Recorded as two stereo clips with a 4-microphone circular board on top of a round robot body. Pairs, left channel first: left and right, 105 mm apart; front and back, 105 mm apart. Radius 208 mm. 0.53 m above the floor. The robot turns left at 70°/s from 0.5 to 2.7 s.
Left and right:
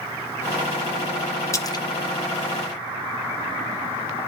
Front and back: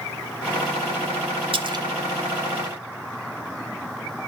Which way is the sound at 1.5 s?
150° left.